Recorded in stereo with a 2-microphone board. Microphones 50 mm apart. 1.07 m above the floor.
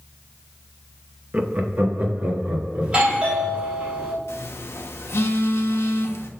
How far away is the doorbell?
About 3.5 m.